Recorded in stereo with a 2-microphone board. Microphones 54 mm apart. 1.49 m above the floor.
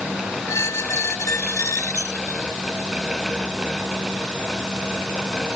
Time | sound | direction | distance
0.5 | a squeak | 75° left (ahead or behind) | ?